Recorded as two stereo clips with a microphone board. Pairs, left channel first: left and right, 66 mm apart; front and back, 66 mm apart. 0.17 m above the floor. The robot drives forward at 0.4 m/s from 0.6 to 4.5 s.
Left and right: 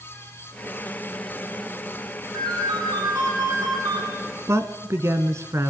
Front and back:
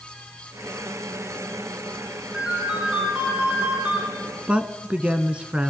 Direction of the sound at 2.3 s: 100° right.